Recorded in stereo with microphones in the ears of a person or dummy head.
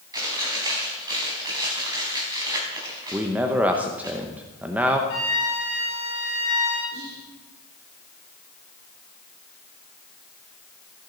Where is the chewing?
20° right (ahead or behind), 4 m.